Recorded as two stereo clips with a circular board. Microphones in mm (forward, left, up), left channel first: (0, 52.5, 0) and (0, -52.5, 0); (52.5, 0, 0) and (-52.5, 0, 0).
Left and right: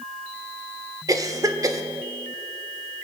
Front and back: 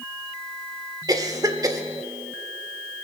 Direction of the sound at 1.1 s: 135° right.